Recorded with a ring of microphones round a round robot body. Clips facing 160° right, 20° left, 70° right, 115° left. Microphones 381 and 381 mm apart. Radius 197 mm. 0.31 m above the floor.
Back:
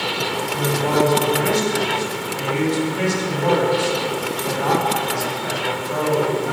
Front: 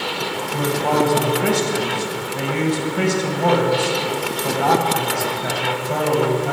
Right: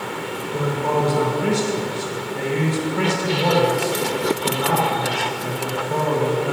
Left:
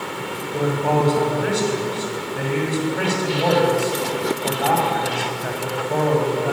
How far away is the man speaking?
About 2 m.